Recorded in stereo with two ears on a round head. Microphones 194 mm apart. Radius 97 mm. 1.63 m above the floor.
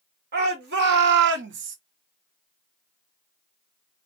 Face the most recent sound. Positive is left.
turn(degrees=-65)  # may be behind; listen again after turning